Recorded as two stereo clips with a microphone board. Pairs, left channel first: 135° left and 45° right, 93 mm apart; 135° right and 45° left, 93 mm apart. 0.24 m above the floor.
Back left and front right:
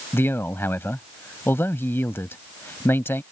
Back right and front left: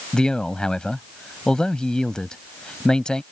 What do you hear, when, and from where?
0.1 s a man speaking: 155° left